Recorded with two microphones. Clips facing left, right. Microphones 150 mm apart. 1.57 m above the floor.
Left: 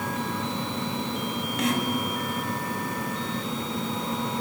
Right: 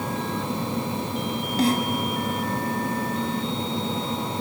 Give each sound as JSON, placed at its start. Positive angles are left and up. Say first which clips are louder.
{"t": 1.6, "sound": "a snare drum", "louder": "right 5 dB", "side_deg": -35, "distance_m": 2.0}